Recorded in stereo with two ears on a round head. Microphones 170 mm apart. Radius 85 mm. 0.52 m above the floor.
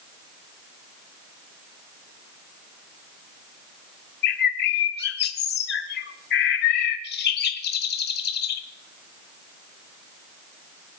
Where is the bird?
55° left (ahead or behind), 1.3 m.